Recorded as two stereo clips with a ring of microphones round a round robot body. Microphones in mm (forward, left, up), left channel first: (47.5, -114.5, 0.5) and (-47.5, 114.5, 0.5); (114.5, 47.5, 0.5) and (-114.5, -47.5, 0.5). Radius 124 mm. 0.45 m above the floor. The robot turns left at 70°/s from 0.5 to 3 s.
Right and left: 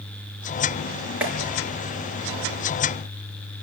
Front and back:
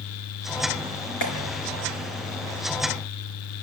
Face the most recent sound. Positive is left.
turn(degrees=-95)